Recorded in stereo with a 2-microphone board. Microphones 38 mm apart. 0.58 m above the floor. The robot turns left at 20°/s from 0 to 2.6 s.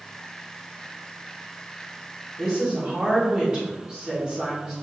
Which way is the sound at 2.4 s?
30° right (ahead or behind).